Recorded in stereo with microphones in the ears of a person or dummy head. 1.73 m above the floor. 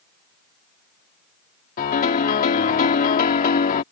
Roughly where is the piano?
Left.